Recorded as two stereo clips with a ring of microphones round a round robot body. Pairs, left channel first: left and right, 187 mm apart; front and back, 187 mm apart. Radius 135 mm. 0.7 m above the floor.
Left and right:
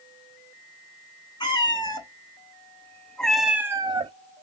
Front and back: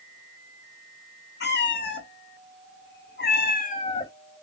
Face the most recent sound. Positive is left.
turn(degrees=-60)